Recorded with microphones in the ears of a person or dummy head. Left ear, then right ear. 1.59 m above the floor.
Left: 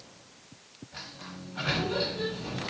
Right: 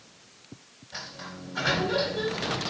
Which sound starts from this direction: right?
A sliding door, at 0.9 s.